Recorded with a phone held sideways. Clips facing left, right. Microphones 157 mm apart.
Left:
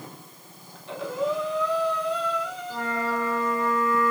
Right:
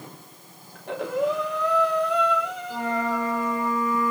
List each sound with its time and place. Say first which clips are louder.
0.8 s breathing: right 3 dB; 60° right (ahead or behind), 3 m
2.7 s a flute: right 2 dB; 10° right (ahead or behind), 3.5 m